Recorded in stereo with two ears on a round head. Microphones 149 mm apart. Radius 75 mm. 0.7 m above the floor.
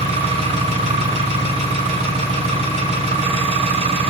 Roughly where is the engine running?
Right.